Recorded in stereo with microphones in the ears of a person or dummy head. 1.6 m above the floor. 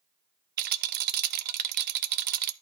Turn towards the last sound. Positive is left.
turn(degrees=-50)  # may be behind; listen again after turning